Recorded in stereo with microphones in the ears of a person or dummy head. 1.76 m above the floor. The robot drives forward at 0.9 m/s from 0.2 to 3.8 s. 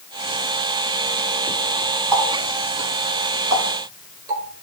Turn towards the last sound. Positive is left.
turn(degrees=-30)  # may be behind; listen again after turning